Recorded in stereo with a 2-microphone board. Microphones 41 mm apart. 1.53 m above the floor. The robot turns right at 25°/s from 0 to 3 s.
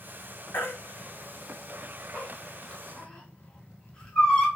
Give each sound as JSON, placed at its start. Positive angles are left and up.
{"t": 0.5, "sound": "a baby crying", "side_deg": 60, "distance_m": 1.0}